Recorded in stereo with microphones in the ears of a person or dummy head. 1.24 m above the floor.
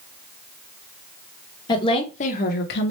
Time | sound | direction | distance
1.7 | a woman speaking | 25° left (ahead or behind) | 1.0 m